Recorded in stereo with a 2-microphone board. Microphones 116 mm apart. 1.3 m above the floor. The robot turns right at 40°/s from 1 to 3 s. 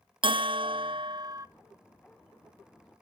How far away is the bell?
About 0.6 m.